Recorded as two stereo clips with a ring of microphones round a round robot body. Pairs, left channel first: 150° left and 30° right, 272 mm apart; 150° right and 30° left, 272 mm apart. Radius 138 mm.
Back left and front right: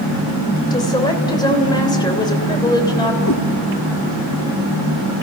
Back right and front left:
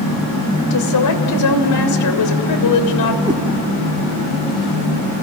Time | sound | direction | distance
0.7 | a woman speaking | 135° right | 3 m
3.2 | a cat meowing | 105° left | 2 m